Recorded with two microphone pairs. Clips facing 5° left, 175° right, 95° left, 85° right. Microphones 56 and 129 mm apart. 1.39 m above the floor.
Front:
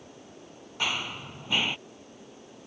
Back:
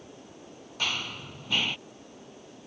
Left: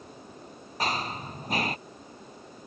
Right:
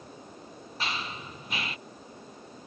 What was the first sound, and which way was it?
Running footsteps, 75° left.